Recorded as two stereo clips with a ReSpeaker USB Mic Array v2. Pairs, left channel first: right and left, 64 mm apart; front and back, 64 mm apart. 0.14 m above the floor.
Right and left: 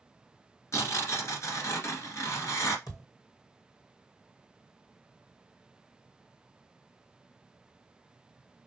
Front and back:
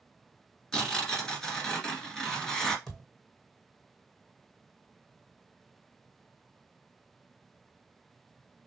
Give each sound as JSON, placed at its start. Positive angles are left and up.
{"t": 0.7, "sound": "tearing paper", "azimuth_deg": -75, "distance_m": 1.7}
{"t": 2.9, "sound": "a thud", "azimuth_deg": -85, "distance_m": 2.0}